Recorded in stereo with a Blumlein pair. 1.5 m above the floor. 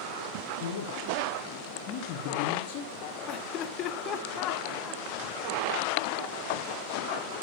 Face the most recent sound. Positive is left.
turn(degrees=35)